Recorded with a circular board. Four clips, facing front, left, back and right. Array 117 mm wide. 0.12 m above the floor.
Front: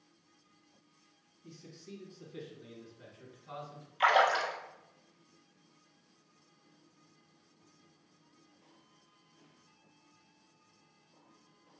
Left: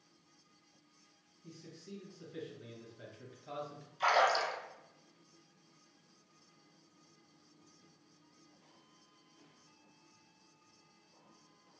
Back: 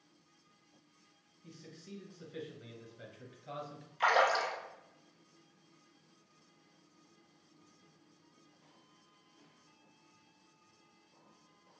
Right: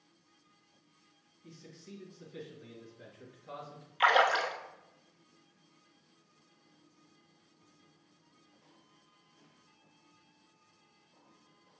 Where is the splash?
70° right, 0.6 m.